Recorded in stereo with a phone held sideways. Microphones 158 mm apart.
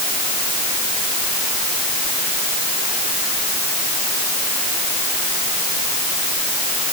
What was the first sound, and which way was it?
Only background noise.